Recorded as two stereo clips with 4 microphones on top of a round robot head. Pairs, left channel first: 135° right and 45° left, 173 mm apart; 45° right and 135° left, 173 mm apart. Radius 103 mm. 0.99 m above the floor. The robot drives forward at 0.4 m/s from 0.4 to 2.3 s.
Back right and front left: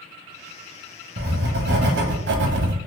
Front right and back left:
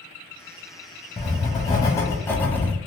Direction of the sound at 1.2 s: 20° left.